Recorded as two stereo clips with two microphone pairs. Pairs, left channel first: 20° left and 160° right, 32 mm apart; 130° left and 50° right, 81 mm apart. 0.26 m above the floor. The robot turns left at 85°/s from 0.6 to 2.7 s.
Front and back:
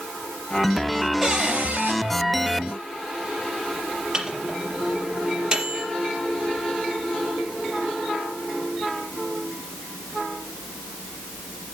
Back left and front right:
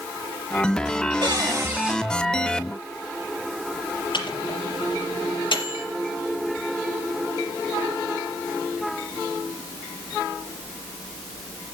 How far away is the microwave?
About 4 m.